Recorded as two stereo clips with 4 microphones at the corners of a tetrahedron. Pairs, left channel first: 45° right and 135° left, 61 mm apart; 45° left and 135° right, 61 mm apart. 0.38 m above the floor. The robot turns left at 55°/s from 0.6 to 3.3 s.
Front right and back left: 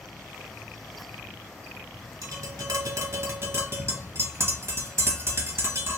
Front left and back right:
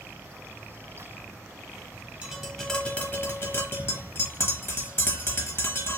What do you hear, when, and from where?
2.2 s tapping: 155° left, 1.0 m; by 6.0 s 95° left, 1.0 m